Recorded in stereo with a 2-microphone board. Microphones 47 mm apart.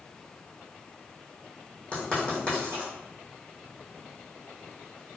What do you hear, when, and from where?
1.9 s writing: 25° left (ahead or behind), 1.8 m